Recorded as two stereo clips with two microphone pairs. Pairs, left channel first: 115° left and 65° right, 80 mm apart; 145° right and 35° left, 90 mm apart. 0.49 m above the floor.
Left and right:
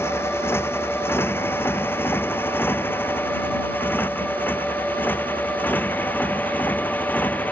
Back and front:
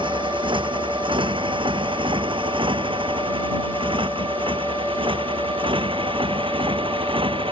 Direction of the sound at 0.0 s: 55° left.